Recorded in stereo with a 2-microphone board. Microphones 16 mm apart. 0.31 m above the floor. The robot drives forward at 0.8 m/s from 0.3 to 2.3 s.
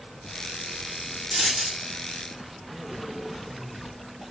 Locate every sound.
1.3 s a dropped coin: 40° right (ahead or behind), 5.5 m; by 1.9 s 35° right (ahead or behind), 5.5 m